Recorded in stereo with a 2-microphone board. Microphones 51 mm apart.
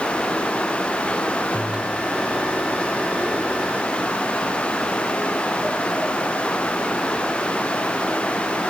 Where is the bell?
25° right (ahead or behind).